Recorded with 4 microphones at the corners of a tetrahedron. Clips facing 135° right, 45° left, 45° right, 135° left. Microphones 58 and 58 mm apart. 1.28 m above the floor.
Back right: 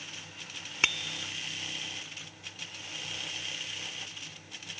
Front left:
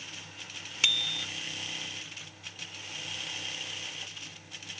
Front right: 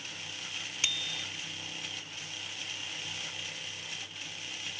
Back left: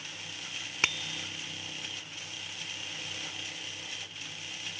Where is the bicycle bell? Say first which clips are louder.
Back right 1 dB, back left 5 dB; 170° left.